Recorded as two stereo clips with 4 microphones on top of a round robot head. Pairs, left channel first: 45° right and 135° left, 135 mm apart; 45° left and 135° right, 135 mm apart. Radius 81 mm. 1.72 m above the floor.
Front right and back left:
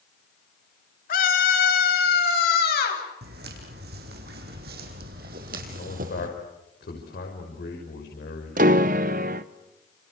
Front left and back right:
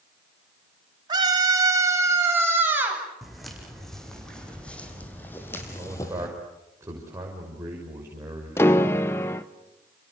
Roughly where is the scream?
Right.